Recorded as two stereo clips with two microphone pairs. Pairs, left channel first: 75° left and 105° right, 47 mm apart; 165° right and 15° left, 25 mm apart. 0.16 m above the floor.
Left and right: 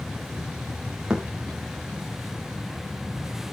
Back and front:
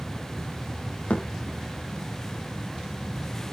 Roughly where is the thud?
Behind.